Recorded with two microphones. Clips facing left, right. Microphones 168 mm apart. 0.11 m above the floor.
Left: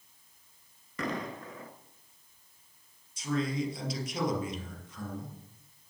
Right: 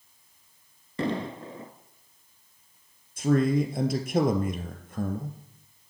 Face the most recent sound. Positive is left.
turn(degrees=-55)  # may be behind; listen again after turning